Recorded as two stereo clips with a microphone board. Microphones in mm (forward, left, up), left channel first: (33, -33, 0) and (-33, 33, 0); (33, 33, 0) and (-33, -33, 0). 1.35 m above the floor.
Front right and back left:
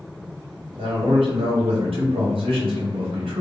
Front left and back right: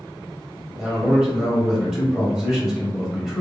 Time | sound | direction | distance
0.8 | a man speaking | 130° left | 0.8 m